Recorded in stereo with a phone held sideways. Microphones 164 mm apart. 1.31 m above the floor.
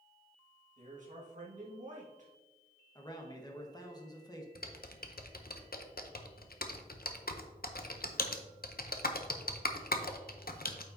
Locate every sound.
0.8 s a man speaking: 50° right (ahead or behind), 1.8 m
3.0 s a man speaking: 25° left (ahead or behind), 1.3 m
4.5 s typing on a keyboard: 65° left (ahead or behind), 0.7 m